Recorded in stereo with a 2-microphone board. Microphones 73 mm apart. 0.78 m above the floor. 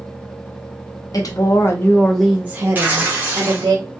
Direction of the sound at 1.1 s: 55° left (ahead or behind).